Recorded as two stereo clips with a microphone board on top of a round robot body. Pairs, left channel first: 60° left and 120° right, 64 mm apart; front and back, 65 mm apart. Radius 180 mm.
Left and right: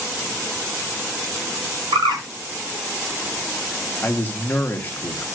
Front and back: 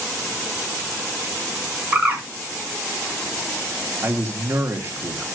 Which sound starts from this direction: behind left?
A man speaking, at 4.0 s.